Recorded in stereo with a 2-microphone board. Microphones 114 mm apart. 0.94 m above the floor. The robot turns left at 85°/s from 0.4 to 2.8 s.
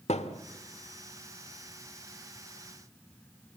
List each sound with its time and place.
0.1 s a thud: 70° left (ahead or behind), 1.3 m